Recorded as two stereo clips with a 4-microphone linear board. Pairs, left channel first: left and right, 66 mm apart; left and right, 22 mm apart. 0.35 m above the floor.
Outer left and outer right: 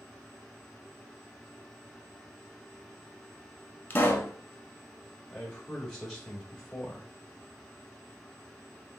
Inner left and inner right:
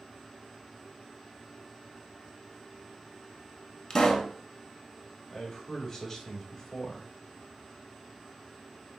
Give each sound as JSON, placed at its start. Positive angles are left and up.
{"t": 3.9, "sound": "a pop", "side_deg": 25, "distance_m": 0.8}
{"t": 5.3, "sound": "a man speaking", "side_deg": 10, "distance_m": 1.0}